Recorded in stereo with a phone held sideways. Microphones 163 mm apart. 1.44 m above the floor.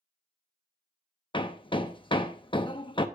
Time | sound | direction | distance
1.3 | hammering | 30° left (ahead or behind) | 0.9 m